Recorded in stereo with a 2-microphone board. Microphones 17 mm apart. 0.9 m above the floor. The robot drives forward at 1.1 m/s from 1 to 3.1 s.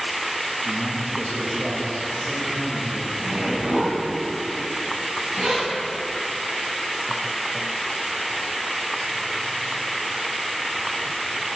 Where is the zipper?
80° right, 2 m.